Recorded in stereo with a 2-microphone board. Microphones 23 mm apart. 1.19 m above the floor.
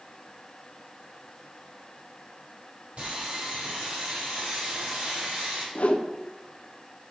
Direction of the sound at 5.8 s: 70° left (ahead or behind).